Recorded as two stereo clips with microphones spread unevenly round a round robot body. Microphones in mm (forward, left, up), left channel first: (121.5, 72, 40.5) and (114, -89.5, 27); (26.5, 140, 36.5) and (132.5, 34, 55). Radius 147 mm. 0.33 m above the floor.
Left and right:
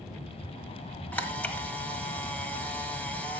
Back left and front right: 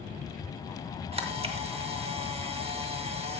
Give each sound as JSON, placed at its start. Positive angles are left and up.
{"t": 1.1, "sound": "a camera shutter", "azimuth_deg": 5, "distance_m": 1.6}